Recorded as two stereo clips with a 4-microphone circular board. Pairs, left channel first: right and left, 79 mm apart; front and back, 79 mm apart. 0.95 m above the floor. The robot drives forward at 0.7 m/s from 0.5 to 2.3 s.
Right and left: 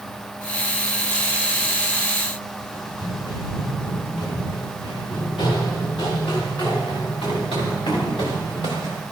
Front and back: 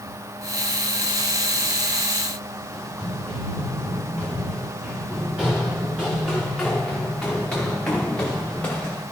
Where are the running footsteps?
110° right, 6.5 m; by 9.0 s 75° right, 4.5 m.